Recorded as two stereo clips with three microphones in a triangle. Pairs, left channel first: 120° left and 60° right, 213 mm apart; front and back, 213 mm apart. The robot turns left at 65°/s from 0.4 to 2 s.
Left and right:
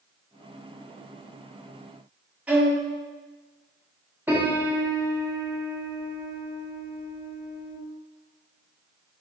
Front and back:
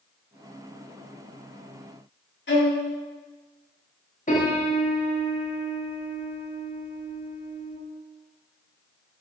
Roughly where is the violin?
Ahead left.